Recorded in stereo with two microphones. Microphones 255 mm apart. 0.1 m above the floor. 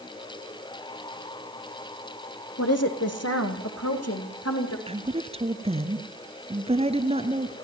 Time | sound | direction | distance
2.6 | a woman speaking | 70° left (ahead or behind) | 4 m
4.9 | a woman speaking | 25° right (ahead or behind) | 1.6 m